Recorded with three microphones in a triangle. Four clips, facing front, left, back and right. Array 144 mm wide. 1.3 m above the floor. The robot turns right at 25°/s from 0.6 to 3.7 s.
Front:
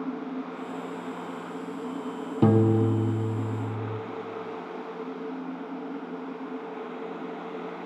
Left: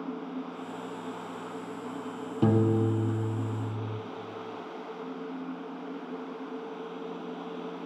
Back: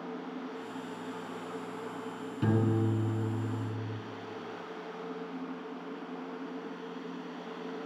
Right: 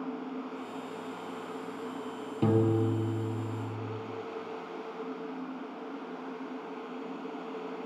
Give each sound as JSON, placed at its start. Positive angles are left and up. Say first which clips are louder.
{"t": 2.4, "sound": "a piano", "louder": "left 2 dB, front 8 dB", "azimuth_deg": 15, "distance_m": 0.6}